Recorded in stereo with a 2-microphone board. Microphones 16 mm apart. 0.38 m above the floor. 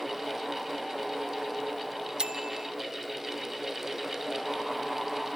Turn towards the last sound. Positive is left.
turn(degrees=-60)  # may be behind; listen again after turning